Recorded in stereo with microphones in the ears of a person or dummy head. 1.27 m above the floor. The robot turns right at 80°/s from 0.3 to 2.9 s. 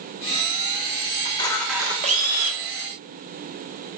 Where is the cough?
I don't hear a cough.